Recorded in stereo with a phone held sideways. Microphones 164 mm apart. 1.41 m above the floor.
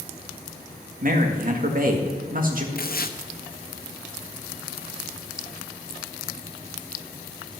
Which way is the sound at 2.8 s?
65° left (ahead or behind).